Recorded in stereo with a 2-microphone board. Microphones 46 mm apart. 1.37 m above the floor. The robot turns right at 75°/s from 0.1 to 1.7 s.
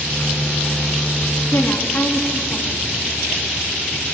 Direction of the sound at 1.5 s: 70° left (ahead or behind).